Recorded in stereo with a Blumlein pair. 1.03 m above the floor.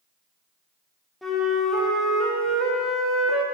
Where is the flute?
5° left, 1.4 m.